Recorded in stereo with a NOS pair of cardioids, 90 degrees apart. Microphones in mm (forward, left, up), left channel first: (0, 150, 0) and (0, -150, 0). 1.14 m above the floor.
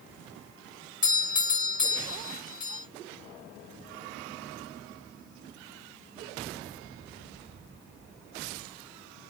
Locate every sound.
1.0 s a doorbell: 30° left, 1.9 m